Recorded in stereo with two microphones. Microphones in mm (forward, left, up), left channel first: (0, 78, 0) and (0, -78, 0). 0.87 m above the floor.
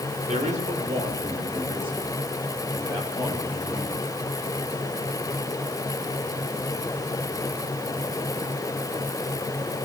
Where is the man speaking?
50° right (ahead or behind), 3.5 m; by 4.0 s 20° right (ahead or behind), 8 m.